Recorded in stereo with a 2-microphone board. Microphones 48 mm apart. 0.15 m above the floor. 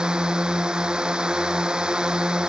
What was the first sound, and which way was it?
A drone, 15° right (ahead or behind).